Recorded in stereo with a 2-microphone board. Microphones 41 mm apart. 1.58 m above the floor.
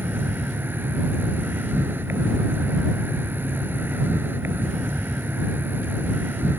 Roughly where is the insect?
Right.